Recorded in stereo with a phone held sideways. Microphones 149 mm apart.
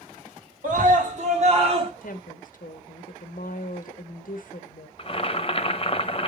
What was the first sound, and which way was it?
A scream, 60° right (ahead or behind).